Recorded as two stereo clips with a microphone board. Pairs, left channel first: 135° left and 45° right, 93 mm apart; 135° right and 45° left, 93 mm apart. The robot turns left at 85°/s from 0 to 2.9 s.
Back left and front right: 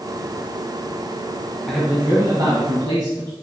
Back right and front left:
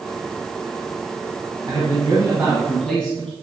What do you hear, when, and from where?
1.7 s a man speaking: 50° left, 1.6 m; by 3.3 s 55° right, 1.6 m